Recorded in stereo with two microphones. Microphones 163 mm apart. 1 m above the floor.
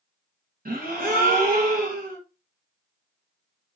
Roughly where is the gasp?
Right.